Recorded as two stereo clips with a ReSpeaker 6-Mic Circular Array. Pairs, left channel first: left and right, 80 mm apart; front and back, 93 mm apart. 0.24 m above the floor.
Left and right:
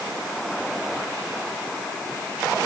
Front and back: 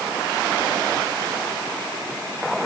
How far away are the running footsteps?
I don't hear running footsteps.